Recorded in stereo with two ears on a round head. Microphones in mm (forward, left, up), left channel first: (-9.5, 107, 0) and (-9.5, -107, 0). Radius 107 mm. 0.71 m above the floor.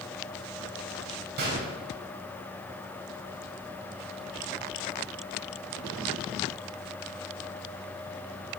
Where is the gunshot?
45° right (ahead or behind), 4 m.